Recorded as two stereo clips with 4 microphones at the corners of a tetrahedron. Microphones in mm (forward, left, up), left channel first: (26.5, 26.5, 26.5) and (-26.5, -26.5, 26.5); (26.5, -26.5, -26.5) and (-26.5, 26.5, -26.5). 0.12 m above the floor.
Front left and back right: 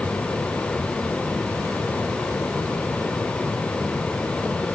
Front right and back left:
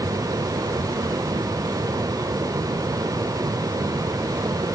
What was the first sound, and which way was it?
Only background noise.